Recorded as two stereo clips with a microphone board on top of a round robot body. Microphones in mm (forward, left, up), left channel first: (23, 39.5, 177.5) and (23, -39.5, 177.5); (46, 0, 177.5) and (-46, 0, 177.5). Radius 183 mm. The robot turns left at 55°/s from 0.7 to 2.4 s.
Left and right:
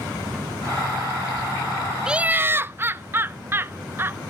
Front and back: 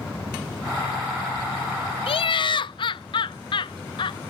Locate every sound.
2.1 s laughter: 10° right, 0.5 m; by 4.2 s 30° right, 0.5 m